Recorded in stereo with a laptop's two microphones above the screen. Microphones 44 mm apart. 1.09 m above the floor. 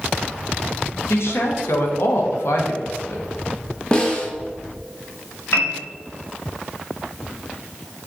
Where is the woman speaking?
75° left (ahead or behind), 0.9 m.